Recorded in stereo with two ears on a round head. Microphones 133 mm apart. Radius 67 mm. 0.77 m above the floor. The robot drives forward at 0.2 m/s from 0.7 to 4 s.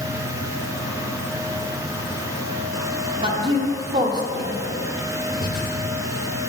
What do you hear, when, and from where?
3.2 s a woman speaking: 35° right (ahead or behind), 0.9 m; by 4.6 s 30° right (ahead or behind), 1.0 m
5.4 s breathing: 60° left (ahead or behind), 1.2 m